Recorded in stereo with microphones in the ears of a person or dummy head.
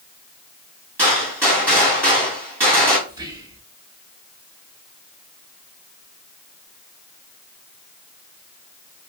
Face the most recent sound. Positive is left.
turn(degrees=-20)  # may be behind; listen again after turning